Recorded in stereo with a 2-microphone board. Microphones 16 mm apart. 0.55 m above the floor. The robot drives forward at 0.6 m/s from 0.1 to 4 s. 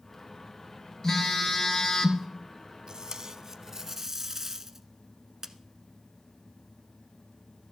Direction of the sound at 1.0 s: 25° left (ahead or behind).